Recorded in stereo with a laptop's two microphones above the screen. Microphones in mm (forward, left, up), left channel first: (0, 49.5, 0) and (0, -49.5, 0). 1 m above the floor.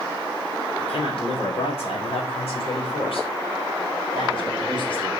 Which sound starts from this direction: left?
A man speaking, at 0.8 s.